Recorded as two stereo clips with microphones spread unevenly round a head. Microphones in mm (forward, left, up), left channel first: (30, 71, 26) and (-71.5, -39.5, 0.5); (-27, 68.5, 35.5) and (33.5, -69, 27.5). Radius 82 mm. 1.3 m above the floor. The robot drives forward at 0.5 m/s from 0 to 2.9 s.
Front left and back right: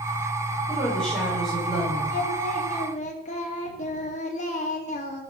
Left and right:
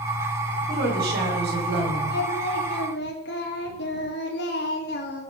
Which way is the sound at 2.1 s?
85° left.